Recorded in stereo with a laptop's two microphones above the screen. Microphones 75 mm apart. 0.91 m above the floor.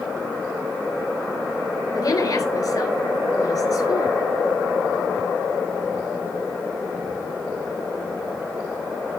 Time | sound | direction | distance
1.9 | a woman speaking | 55° left (ahead or behind) | 4 m